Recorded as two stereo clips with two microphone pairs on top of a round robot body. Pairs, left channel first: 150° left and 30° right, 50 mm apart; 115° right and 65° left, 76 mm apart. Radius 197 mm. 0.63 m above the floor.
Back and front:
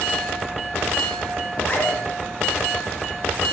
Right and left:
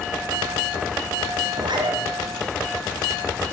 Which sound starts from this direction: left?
A zipper, at 1.5 s.